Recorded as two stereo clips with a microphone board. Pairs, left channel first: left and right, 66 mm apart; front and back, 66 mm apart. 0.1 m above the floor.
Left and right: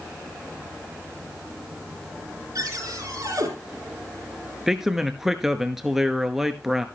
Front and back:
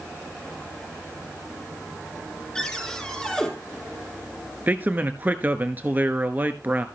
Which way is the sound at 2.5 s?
75° right.